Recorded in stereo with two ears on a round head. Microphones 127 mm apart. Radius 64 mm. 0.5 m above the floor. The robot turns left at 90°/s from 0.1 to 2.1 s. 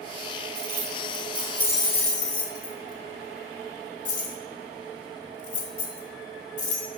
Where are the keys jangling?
75° right (ahead or behind), 2.5 m; by 6.9 s 55° left (ahead or behind), 2.5 m.